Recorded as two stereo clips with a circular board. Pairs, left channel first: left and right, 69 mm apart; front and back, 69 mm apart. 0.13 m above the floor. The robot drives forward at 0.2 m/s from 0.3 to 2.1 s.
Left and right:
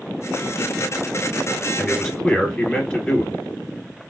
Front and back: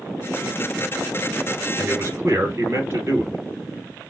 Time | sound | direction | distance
1.8 | a man speaking | 165° left | 1.6 m